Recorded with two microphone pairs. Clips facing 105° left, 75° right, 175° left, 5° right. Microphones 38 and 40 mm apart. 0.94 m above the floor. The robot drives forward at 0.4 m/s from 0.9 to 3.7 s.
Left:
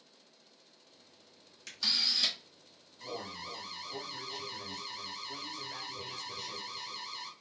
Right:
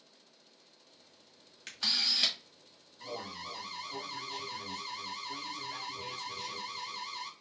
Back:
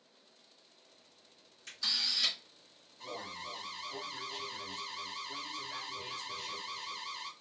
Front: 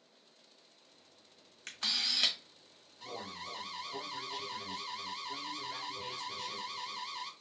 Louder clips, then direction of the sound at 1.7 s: Even, front 1 dB; 30° right.